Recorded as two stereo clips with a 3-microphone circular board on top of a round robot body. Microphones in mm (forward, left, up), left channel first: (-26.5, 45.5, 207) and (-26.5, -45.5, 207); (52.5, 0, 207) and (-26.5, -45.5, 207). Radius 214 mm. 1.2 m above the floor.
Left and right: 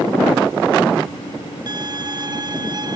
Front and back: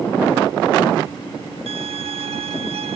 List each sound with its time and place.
1.7 s a violin: 135° right